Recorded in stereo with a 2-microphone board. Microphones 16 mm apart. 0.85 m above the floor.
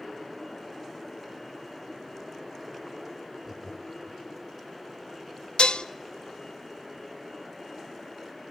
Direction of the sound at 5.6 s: 75° left (ahead or behind).